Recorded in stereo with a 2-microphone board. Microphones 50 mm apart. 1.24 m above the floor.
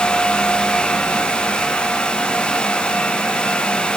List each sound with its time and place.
Only background noise.